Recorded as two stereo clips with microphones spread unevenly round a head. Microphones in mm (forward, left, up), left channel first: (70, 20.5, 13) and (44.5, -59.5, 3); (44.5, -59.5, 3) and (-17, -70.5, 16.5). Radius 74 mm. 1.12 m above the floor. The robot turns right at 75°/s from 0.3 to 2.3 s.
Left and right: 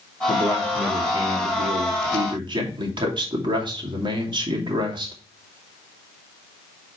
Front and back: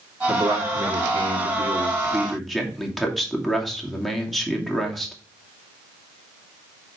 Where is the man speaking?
130° left, 2.5 m; by 5.1 s 80° right, 2.5 m.